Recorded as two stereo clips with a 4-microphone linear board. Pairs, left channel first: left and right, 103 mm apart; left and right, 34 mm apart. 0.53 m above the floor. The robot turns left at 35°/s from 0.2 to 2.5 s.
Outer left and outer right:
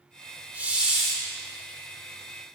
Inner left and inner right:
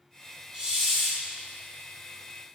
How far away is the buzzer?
No buzzer in this recording.